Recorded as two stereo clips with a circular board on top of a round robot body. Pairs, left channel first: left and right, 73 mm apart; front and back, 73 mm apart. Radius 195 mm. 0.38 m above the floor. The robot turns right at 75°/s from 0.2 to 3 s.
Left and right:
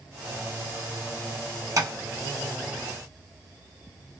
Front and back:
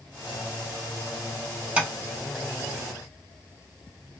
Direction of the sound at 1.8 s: 110° right.